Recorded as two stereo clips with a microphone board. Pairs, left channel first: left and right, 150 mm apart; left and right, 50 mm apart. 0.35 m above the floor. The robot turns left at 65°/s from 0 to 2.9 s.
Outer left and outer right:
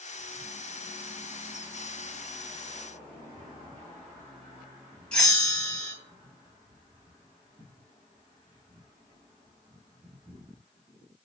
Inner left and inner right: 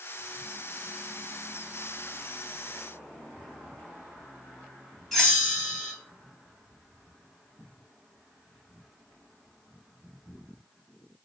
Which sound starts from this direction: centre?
A bell, at 5.1 s.